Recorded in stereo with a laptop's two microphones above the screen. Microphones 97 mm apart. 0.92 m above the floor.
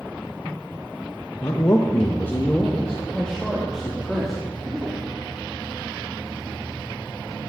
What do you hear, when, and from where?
1.4 s a man speaking: 40° left (ahead or behind), 1.0 m; by 5.0 s 5° right (ahead or behind), 2.5 m